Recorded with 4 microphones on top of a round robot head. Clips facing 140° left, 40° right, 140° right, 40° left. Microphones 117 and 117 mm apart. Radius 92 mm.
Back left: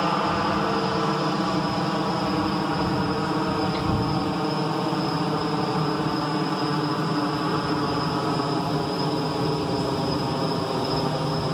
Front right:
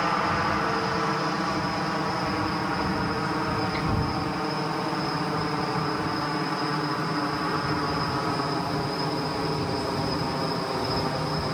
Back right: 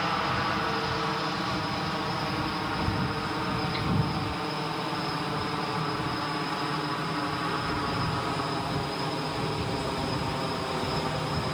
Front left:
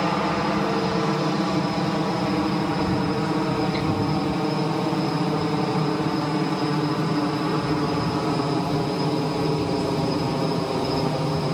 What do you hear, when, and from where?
0.0 s a helicopter: 70° left